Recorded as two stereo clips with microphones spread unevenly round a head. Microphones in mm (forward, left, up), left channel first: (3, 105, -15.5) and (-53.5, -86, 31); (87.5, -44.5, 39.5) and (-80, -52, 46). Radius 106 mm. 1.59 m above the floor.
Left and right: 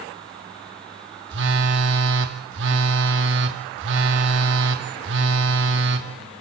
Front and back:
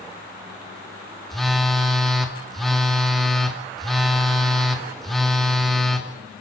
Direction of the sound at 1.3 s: 85° right.